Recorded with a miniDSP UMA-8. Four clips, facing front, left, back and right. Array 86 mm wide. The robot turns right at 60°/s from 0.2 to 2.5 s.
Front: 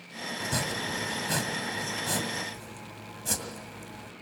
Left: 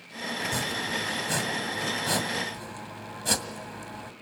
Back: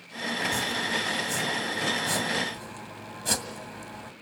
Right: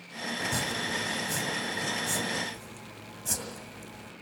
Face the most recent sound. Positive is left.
turn(degrees=120)